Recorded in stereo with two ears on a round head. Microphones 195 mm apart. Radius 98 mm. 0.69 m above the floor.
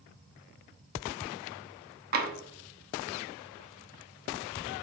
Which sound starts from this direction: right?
Tapping, at 2.1 s.